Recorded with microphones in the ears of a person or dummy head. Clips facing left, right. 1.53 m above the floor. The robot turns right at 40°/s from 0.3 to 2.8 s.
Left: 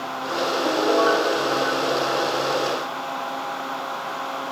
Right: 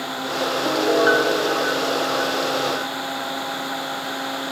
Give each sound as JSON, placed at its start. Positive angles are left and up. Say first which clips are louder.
{"t": 0.6, "sound": "a piano", "louder": "right 2 dB", "azimuth_deg": 180, "distance_m": 1.2}